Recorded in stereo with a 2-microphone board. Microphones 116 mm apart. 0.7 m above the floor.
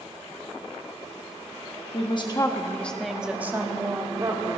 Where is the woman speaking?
50° left (ahead or behind), 1.1 m; by 4.6 s 35° right (ahead or behind), 2 m.